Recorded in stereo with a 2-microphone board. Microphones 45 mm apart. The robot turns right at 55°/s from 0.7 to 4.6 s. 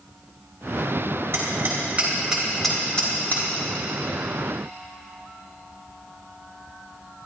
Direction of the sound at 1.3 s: 65° right (ahead or behind).